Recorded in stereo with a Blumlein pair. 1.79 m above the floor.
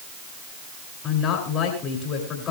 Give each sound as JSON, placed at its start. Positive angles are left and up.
{"t": 1.0, "sound": "a woman speaking", "azimuth_deg": 25, "distance_m": 9.5}